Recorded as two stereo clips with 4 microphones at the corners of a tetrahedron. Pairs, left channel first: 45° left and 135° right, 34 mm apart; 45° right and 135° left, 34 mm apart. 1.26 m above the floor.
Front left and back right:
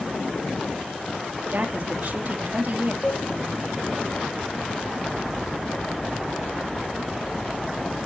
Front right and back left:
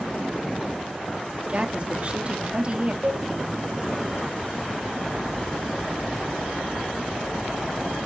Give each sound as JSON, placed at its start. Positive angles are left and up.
{"t": 1.5, "sound": "a woman speaking", "azimuth_deg": -170, "distance_m": 1.8}
{"t": 3.0, "sound": "a cowbell", "azimuth_deg": 105, "distance_m": 5.5}